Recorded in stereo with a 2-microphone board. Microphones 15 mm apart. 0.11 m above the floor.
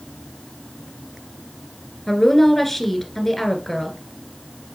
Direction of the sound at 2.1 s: 20° left (ahead or behind).